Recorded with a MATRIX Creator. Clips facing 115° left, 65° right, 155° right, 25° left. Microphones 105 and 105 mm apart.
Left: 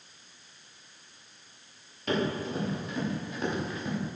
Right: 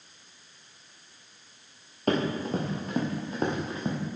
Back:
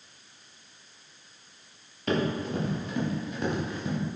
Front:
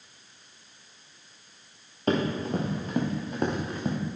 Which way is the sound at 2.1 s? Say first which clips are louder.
Right 3 dB, front 2 dB; 30° right.